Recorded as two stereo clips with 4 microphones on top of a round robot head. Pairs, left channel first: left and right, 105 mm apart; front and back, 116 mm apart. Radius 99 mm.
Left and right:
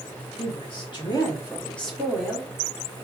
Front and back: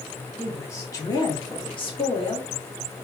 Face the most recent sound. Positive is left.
turn(degrees=-25)